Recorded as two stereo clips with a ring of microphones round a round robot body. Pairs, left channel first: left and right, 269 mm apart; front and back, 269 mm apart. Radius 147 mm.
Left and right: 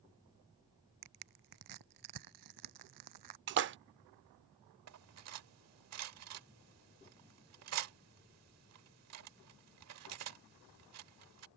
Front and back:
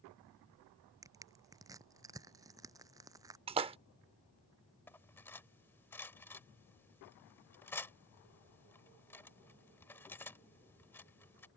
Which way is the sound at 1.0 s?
100° right.